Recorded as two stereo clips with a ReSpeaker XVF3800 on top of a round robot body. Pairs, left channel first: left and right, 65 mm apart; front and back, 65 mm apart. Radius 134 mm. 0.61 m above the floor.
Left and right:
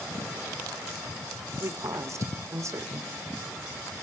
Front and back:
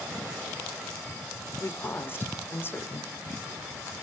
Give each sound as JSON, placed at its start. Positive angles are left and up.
{"t": 1.6, "sound": "a woman speaking", "azimuth_deg": -55, "distance_m": 3.0}